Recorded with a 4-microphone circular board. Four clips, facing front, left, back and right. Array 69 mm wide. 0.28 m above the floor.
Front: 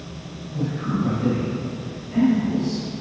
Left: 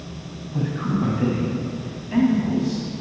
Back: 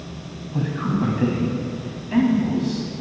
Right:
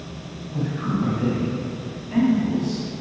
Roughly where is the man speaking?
Behind.